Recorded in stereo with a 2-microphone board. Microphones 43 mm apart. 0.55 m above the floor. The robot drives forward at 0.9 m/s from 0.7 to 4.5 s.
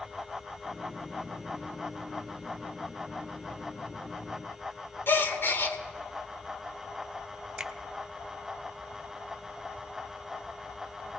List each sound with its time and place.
5.1 s a gasp: 55° left (ahead or behind), 0.9 m
7.6 s a finger snap: 20° right (ahead or behind), 0.7 m